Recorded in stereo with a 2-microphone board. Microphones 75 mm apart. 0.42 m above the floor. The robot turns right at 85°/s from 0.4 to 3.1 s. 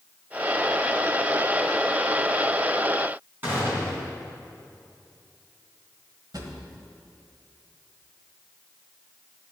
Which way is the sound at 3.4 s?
25° right (ahead or behind).